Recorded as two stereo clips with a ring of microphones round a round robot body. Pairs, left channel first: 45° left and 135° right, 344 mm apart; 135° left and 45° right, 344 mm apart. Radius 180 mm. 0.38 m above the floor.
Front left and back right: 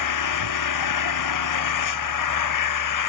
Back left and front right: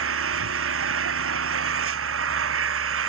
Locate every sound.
0.0 s an engine running: 10° left